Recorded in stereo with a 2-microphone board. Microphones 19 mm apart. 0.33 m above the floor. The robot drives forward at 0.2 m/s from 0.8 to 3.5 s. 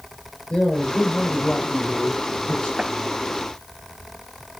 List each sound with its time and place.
0.5 s a man speaking: 80° left, 7.5 m
2.8 s tapping: 25° right (ahead or behind), 5 m